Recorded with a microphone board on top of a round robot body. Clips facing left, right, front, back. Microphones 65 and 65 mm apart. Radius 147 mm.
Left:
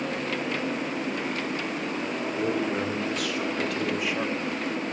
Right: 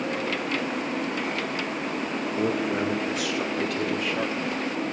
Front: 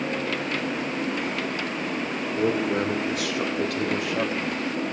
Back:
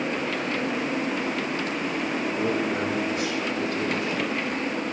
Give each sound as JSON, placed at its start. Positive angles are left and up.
{"t": 2.4, "sound": "a man speaking", "azimuth_deg": -10, "distance_m": 3.5}